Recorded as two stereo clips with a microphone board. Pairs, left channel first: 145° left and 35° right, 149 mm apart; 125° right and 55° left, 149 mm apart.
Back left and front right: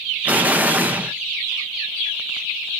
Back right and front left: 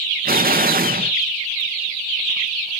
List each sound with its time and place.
0.2 s an explosion: 45° left, 0.5 m